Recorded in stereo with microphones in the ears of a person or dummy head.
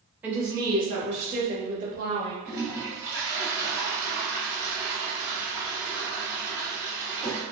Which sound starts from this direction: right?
A toilet flushing, at 2.5 s.